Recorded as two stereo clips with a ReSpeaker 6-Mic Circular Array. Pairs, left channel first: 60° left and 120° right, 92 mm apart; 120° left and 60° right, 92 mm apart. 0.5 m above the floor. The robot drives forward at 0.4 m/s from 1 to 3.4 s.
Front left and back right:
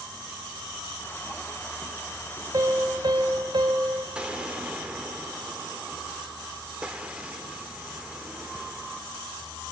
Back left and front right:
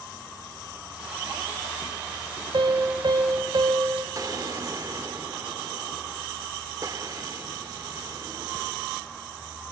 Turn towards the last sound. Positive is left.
turn(degrees=-45)